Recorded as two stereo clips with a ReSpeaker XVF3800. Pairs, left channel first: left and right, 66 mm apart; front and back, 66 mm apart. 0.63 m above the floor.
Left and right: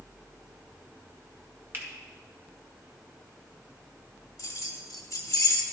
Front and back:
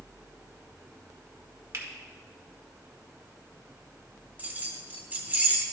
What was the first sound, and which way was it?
A finger snap, 140° right.